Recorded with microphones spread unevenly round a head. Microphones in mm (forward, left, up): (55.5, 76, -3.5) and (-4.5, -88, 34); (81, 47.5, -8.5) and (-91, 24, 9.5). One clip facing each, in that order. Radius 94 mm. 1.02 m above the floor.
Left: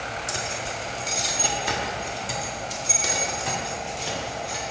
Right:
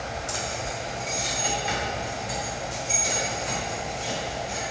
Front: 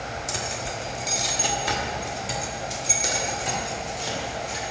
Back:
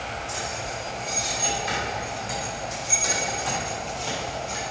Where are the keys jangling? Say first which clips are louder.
Even, front 1 dB; 5° left, 1.2 m; by 4.6 s 85° left, 2 m.